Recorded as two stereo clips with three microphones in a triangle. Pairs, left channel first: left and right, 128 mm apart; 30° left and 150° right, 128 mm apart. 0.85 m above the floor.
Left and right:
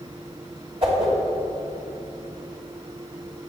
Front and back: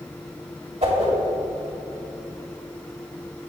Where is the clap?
I don't hear a clap.